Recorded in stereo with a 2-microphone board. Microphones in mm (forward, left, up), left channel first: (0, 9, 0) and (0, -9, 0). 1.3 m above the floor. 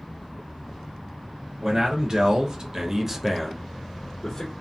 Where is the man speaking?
45° right (ahead or behind), 1.2 m; by 4.5 s 35° left (ahead or behind), 1.0 m.